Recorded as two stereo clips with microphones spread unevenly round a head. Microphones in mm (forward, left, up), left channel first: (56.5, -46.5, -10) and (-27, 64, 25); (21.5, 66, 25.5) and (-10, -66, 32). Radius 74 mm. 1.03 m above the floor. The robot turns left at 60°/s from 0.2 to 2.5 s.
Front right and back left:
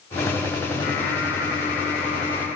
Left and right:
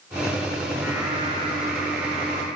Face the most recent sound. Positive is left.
turn(degrees=-120)